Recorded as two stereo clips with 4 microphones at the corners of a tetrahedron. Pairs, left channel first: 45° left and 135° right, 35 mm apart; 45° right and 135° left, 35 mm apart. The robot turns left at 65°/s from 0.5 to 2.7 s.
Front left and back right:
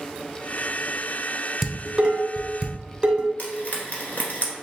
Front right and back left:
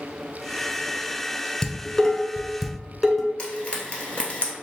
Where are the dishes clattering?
60° right, 0.8 m; by 3.3 s 130° right, 0.8 m.